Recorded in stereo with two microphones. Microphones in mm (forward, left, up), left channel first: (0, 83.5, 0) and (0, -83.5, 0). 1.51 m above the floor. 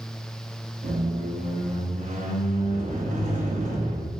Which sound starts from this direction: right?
A squeak, at 0.8 s.